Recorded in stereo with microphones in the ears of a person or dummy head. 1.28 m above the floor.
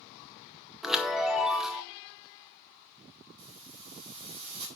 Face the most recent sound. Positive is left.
turn(degrees=-35)  # may be behind; listen again after turning